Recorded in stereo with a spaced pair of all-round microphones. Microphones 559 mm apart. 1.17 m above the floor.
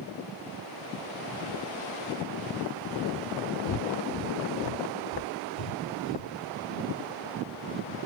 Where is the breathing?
75° left (ahead or behind).